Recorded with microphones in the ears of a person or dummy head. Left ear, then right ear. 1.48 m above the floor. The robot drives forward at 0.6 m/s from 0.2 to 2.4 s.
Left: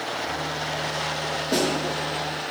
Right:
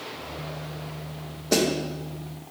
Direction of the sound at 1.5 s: 65° right (ahead or behind).